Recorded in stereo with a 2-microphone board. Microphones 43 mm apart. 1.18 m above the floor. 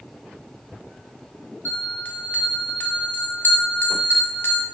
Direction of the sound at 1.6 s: 50° left (ahead or behind).